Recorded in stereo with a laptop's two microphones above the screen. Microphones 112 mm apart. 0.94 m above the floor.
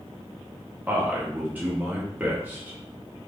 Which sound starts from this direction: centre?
A man speaking, at 0.9 s.